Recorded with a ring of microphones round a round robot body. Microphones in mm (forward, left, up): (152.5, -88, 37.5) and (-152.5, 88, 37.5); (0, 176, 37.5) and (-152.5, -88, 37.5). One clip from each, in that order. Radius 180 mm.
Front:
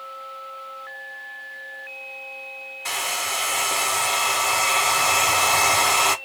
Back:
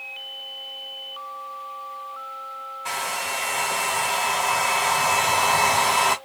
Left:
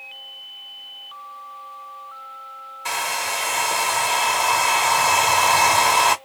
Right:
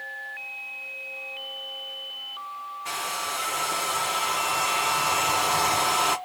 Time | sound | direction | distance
2.9 | a hair dryer | 35° left | 0.7 m